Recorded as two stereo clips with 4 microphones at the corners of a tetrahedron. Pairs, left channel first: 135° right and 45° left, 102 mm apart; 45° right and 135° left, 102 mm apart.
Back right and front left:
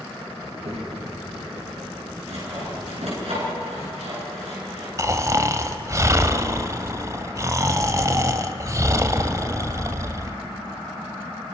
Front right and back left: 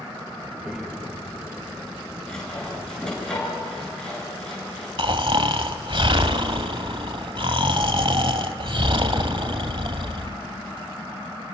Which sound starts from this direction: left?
Snoring, at 5.0 s.